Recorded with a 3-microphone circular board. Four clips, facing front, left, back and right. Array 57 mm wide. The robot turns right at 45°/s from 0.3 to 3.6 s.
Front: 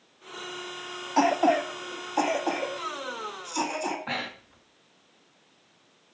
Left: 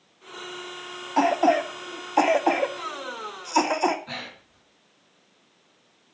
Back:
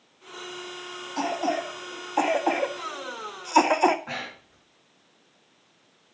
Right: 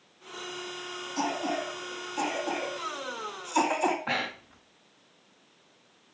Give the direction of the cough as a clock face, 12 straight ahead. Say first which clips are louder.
Left 11 dB, front 5 dB; 10 o'clock.